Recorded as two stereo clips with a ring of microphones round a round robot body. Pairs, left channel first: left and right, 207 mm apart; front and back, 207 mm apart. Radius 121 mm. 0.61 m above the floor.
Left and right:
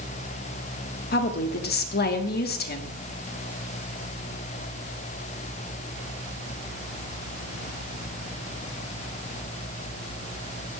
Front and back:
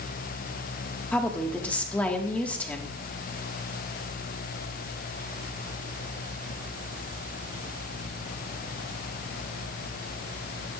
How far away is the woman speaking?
About 1.6 m.